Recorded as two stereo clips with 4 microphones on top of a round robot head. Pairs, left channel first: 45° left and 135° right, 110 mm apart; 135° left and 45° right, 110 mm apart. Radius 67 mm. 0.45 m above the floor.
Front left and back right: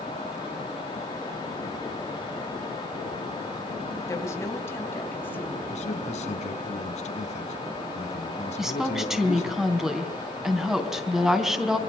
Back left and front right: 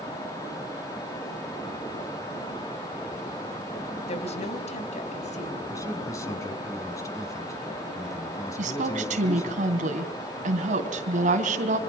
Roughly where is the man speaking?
Left.